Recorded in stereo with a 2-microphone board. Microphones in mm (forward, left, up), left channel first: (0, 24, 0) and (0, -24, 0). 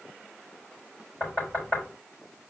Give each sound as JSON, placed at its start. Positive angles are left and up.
{"t": 1.2, "sound": "knocking", "side_deg": 20, "distance_m": 5.5}